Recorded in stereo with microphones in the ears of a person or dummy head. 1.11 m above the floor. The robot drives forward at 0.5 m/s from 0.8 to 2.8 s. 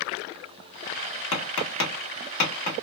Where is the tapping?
75° left (ahead or behind), 1.2 m; by 2.8 s 50° left (ahead or behind), 1.6 m.